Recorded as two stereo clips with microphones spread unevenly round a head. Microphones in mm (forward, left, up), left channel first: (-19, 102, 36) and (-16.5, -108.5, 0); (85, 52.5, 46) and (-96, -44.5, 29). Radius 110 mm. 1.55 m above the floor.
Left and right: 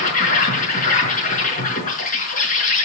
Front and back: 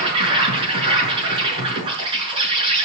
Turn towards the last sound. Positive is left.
turn(degrees=140)